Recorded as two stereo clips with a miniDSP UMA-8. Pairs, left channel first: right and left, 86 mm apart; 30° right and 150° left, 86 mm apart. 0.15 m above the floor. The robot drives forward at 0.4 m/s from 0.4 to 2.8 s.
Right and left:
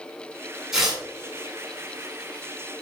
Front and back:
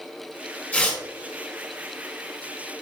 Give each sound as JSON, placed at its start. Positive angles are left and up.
{"t": 0.7, "sound": "tearing paper", "azimuth_deg": 15, "distance_m": 1.7}